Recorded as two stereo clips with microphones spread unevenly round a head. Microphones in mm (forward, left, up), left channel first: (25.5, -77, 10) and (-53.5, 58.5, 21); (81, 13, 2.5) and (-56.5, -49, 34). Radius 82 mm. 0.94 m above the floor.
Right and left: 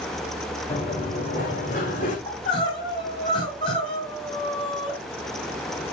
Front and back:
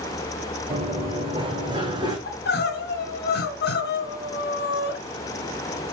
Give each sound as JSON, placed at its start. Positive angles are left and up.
{"t": 0.7, "sound": "running footsteps", "azimuth_deg": -110, "distance_m": 4.5}
{"t": 2.3, "sound": "crying", "azimuth_deg": 5, "distance_m": 3.0}